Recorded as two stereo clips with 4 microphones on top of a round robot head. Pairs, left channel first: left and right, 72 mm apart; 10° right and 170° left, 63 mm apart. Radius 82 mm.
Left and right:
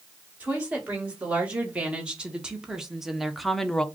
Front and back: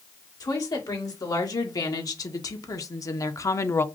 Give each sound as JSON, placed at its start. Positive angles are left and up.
{"t": 0.4, "sound": "a woman speaking", "azimuth_deg": -20, "distance_m": 2.0}